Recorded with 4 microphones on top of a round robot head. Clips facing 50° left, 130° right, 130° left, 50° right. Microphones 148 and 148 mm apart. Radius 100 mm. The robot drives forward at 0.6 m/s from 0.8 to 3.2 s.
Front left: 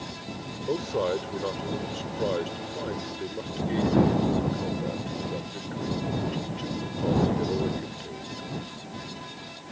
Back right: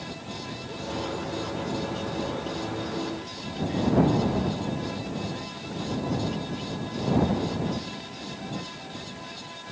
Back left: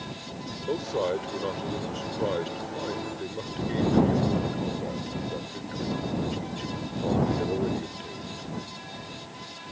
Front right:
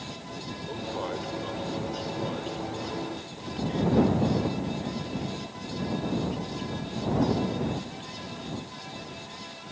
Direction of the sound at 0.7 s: 80° left.